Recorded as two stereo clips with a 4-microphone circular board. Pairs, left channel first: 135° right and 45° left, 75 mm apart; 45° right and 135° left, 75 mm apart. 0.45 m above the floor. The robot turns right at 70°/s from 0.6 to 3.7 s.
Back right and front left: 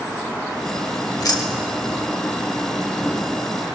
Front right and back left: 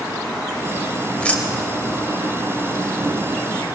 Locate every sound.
1.2 s keys jangling: 125° right, 1.1 m; by 2.1 s 60° right, 1.1 m